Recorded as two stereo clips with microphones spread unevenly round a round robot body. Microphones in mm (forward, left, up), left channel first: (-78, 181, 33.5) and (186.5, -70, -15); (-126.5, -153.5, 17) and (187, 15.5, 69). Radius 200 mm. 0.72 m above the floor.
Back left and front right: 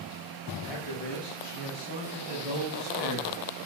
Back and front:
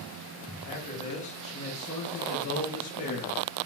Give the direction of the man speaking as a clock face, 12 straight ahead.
7 o'clock.